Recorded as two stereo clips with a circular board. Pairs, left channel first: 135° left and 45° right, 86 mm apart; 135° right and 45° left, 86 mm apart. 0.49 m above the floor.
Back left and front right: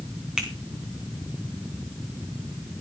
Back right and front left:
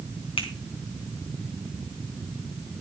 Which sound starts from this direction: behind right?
A finger snap, at 0.4 s.